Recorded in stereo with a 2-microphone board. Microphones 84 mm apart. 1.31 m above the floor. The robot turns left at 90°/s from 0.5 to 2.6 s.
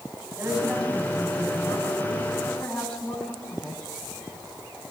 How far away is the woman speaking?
About 9.5 m.